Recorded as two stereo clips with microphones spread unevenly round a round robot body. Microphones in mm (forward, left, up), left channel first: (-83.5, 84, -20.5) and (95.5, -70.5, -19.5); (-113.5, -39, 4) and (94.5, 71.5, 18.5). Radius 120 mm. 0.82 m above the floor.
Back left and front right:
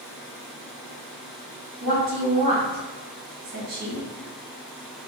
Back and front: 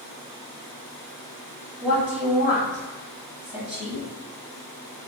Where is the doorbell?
No doorbell in this recording.